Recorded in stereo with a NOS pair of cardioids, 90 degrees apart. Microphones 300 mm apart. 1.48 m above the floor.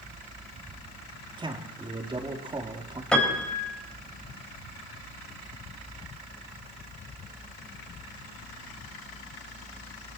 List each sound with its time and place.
1.4 s a man speaking: 15° right, 3.5 m
3.1 s a piano: 5° left, 4 m